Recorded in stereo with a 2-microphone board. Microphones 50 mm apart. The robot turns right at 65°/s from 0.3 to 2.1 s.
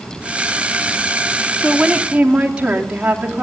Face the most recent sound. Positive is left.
turn(degrees=-155)